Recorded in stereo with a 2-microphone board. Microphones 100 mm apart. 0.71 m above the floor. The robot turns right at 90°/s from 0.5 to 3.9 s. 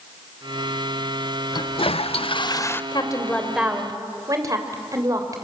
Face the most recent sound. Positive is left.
turn(degrees=-145)